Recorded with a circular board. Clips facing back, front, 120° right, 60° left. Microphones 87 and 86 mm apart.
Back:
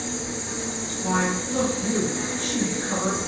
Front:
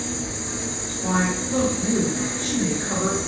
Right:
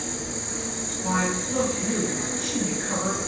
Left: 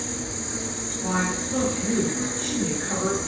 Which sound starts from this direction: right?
An insect, at 0.0 s.